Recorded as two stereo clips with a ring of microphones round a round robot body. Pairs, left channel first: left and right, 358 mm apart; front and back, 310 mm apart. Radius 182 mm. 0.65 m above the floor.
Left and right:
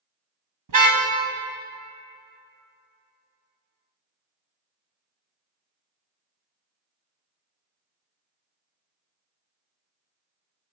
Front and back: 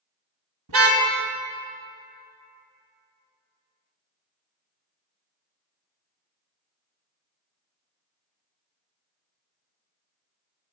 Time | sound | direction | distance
0.7 | a car horn | 135° right | 2 m